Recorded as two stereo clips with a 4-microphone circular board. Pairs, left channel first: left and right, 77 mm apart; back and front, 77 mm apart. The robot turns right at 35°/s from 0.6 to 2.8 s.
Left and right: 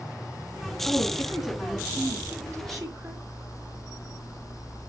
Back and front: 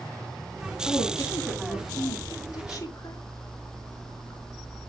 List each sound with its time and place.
0.8 s a woman speaking: 160° left, 4 m; by 3.2 s 135° right, 4 m